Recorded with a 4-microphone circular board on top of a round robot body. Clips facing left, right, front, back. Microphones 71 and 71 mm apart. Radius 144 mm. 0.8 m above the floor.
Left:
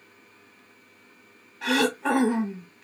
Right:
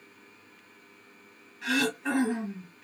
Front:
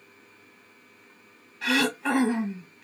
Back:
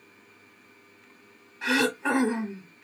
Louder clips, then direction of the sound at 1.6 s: Left 5 dB, even; 115° left.